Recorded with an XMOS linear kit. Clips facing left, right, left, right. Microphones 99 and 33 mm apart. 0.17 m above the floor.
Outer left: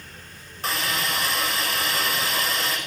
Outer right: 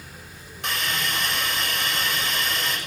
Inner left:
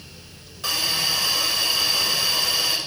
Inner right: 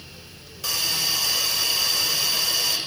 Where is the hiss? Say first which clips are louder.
Outer left 1 dB, inner left 2 dB; 35° left (ahead or behind), 9 m.